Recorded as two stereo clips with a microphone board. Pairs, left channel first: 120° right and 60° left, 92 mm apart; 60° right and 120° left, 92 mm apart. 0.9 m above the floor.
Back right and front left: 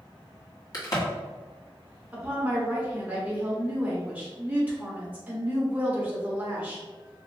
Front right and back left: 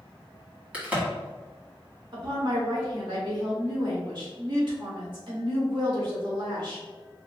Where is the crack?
165° right, 2.0 m.